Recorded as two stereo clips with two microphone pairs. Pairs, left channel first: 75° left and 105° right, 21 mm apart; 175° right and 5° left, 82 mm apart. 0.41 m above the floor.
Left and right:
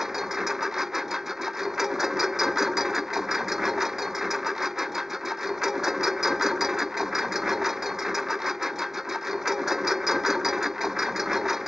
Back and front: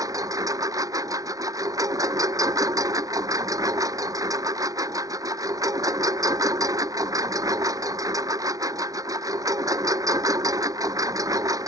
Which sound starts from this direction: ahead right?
A lawn mower, at 0.0 s.